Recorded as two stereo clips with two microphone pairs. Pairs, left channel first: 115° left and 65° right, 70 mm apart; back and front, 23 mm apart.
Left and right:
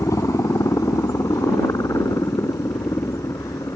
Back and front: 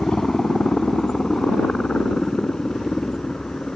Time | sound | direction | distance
0.0 | a helicopter | 130° left | ?